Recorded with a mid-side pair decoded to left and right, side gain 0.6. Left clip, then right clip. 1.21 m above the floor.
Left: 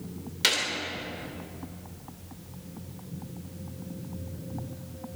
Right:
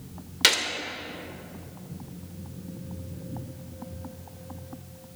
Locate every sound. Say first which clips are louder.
0.4 s a gunshot: right 4 dB; 30° right, 2.5 m